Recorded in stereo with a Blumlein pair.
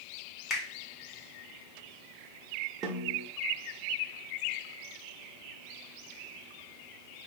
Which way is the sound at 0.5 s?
20° left.